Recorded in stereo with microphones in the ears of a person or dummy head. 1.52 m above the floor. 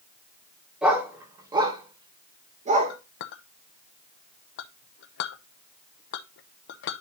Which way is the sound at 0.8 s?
Centre (ahead or behind).